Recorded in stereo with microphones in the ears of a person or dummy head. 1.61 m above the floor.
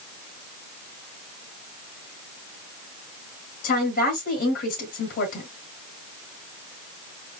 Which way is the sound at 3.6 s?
40° left (ahead or behind).